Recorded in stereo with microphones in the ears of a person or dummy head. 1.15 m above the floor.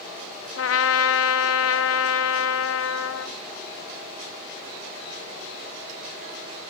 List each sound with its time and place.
0.6 s a trumpet: 70° left (ahead or behind), 0.5 m